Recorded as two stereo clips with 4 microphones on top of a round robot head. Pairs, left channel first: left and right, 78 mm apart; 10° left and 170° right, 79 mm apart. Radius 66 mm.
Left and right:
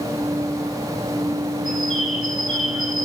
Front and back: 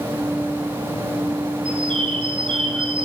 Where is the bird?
175° right, 6 m.